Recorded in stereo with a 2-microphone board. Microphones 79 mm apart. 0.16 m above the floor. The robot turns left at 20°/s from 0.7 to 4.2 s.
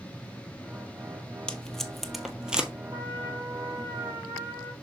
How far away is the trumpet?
About 2.5 m.